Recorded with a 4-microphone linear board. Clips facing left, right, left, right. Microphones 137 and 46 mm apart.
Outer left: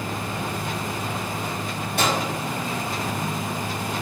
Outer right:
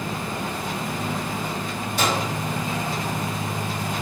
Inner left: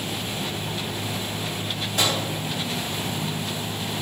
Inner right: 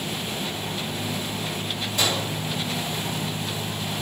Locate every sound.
2.0 s a microwave: 65° left (ahead or behind), 1.5 m